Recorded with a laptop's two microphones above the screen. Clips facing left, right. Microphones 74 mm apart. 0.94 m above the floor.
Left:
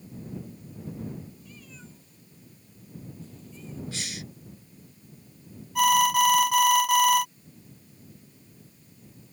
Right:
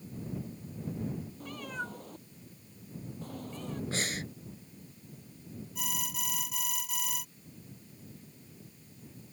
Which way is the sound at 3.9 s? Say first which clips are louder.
Right 3 dB; 40° right (ahead or behind).